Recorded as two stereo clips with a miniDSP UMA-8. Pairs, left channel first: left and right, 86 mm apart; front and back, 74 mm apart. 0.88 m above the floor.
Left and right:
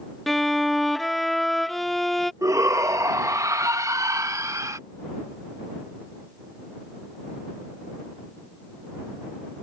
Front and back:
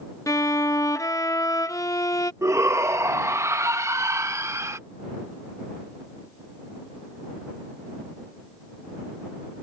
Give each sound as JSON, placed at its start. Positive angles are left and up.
{"t": 0.3, "sound": "a violin", "azimuth_deg": 5}
{"t": 2.4, "sound": "a shout", "azimuth_deg": -135}